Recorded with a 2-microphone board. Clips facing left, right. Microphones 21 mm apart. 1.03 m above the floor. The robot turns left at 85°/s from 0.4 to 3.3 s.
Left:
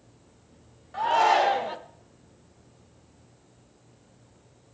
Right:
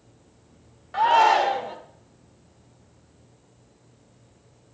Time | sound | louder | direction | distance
0.9 | a shout | right 4 dB | 150° right | 0.8 m